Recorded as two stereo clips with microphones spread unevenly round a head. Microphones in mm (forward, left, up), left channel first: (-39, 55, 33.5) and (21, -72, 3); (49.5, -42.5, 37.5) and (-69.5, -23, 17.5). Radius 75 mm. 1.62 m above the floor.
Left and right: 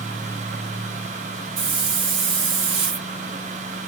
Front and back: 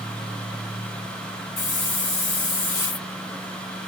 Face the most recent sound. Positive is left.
turn(degrees=-10)